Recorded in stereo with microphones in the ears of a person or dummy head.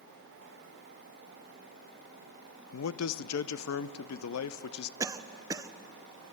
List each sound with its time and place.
2.7 s a man speaking: 80° left, 0.7 m
5.0 s a cough: 15° right (ahead or behind), 0.8 m